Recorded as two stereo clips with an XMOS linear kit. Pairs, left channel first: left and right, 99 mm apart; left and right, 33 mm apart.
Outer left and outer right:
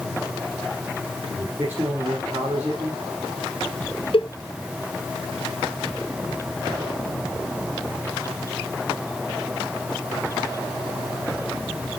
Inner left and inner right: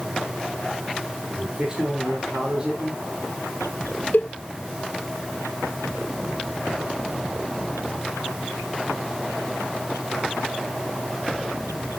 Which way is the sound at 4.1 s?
65° left (ahead or behind).